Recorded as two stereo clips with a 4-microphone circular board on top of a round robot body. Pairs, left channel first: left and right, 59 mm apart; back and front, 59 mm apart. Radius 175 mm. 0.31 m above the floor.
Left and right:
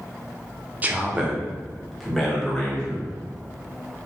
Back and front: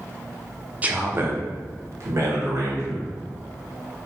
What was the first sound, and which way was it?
A man speaking, 45° right.